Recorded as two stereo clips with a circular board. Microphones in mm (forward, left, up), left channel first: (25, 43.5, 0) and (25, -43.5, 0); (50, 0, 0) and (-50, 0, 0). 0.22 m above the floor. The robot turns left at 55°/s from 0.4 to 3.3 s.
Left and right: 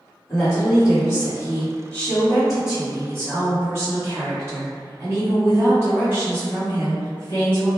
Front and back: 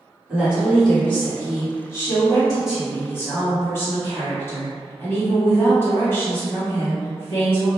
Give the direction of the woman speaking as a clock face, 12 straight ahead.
8 o'clock.